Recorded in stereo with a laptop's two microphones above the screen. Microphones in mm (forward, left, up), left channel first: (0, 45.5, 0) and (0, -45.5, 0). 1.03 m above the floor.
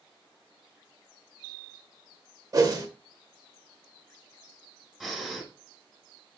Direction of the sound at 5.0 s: 5° right (ahead or behind).